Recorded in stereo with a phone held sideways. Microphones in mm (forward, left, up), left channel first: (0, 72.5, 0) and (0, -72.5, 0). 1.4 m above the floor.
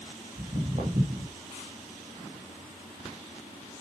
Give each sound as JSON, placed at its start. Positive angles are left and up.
{"t": 0.4, "sound": "footsteps", "side_deg": -50, "distance_m": 3.5}